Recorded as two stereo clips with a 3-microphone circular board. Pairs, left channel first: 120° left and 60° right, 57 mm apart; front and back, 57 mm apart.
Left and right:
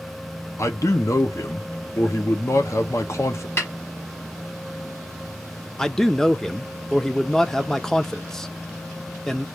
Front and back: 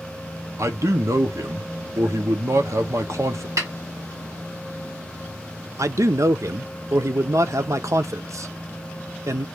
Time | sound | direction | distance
0.6 | a man speaking | 150° left | 1.0 m
3.6 | a snare drum | 160° left | 1.8 m
5.8 | a man speaking | 160° right | 0.6 m